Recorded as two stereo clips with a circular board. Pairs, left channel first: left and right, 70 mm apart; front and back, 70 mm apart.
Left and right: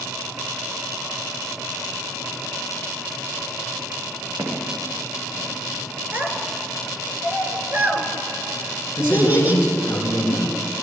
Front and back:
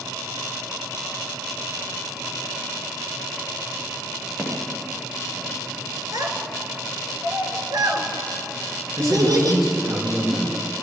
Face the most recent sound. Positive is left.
turn(degrees=140)